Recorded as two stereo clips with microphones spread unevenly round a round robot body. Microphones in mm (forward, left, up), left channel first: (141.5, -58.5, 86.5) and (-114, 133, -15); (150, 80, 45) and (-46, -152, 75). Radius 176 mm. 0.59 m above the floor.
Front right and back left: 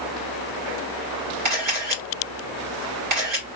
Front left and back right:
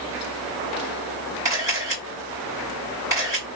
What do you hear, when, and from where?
1.4 s a camera shutter: 150° left, 2.5 m